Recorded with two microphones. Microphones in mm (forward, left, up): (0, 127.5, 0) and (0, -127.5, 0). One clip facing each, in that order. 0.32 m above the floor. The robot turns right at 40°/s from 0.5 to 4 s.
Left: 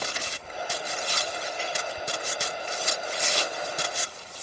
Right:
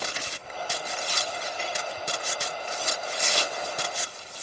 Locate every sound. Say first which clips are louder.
1.6 s a snare drum: even; 40° right (ahead or behind), 9.5 m; by 1.7 s 35° right (ahead or behind), 9.5 m